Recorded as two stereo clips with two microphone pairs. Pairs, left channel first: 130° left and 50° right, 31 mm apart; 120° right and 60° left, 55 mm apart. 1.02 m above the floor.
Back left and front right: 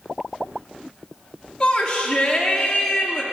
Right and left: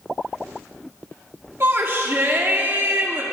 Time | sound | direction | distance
1.6 | a shout | 60° left | 1.0 m